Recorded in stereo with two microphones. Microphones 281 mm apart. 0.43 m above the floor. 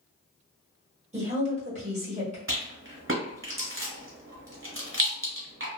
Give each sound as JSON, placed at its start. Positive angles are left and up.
{"t": 1.1, "sound": "a woman speaking", "side_deg": -25, "distance_m": 1.5}
{"t": 2.5, "sound": "a rattle", "side_deg": -45, "distance_m": 1.1}